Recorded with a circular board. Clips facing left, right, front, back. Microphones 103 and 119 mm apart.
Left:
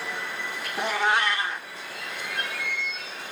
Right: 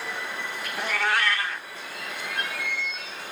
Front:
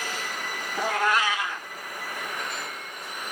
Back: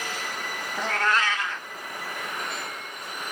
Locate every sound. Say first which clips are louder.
0.8 s a cat meowing: left 2 dB, front 1 dB; 60° left, 0.9 m